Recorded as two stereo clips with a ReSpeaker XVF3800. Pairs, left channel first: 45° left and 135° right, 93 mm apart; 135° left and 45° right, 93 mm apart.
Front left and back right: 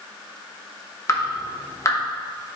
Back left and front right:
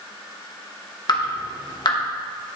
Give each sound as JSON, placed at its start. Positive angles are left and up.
{"t": 1.1, "sound": "dripping", "azimuth_deg": 100, "distance_m": 1.0}